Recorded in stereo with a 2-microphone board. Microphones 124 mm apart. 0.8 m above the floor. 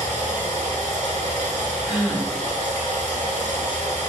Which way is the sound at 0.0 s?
75° right (ahead or behind).